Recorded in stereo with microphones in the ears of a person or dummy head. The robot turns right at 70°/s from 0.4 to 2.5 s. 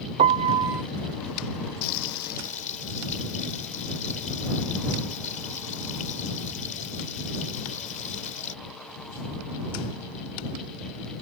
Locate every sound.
0.2 s a piano: 35° right (ahead or behind); by 0.8 s 5° right (ahead or behind)
1.8 s frying: 90° left; by 8.6 s 135° left